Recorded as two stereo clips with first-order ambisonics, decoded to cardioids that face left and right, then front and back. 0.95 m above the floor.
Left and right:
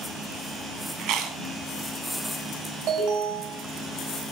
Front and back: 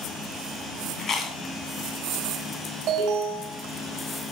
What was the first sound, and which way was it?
Chewing, 60° right.